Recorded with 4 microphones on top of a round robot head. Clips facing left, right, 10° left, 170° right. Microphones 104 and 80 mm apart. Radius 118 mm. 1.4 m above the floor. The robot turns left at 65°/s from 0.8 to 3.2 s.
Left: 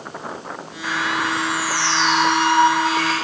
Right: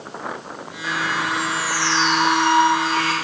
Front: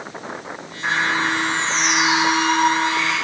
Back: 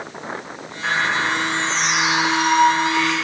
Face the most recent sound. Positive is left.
turn(degrees=-60)